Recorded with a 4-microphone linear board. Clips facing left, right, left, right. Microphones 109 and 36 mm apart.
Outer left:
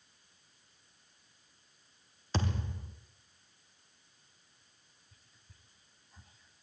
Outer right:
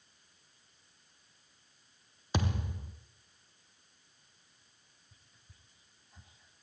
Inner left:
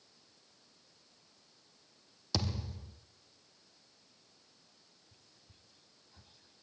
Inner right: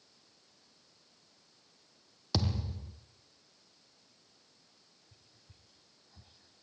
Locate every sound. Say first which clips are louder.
2.3 s a thud: outer right 1 dB, inner right 3 dB; 15° right (ahead or behind), 3.5 m
5.1 s whispering: even, even; 20° right (ahead or behind), 3.5 m